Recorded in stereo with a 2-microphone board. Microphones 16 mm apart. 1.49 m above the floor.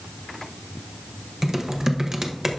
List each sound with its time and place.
1.4 s typing on a keyboard: 30° right (ahead or behind), 0.8 m